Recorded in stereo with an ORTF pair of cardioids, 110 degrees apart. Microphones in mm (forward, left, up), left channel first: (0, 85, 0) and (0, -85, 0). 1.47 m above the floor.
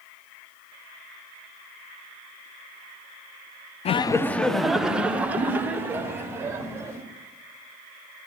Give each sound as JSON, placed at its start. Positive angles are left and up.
{"t": 3.9, "sound": "laughter", "azimuth_deg": 40, "distance_m": 0.5}